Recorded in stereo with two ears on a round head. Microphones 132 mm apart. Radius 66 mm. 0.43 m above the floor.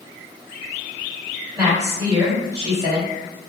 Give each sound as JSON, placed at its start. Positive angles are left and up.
{"t": 1.6, "sound": "a woman speaking", "side_deg": -25, "distance_m": 2.0}